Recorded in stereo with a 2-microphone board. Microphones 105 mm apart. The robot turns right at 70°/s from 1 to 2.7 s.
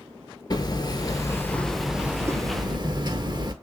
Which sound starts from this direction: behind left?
Hammering, at 0.5 s.